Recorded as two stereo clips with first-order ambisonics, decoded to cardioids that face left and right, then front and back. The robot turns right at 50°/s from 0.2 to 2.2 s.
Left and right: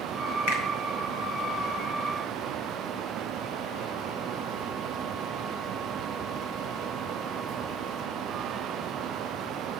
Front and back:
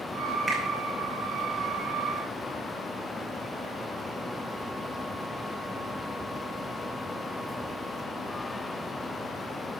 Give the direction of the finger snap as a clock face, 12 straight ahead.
9 o'clock.